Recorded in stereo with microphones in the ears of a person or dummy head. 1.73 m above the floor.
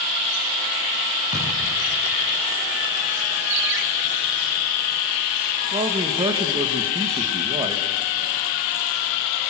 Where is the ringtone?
65° right (ahead or behind), 1.8 m.